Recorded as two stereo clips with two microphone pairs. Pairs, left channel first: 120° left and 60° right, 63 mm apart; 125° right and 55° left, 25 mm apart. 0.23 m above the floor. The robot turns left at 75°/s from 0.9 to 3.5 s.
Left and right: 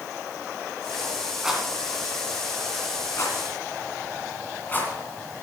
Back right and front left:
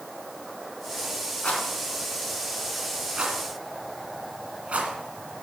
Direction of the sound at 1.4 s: 140° right.